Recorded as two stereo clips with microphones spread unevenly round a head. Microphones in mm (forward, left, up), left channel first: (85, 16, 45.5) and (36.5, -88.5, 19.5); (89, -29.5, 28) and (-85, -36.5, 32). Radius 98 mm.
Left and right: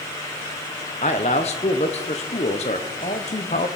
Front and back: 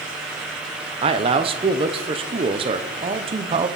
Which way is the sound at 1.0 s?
120° left.